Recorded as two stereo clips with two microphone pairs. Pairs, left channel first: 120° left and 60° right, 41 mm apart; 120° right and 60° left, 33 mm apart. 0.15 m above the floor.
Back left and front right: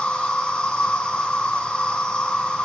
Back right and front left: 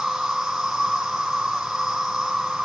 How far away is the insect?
About 1.2 m.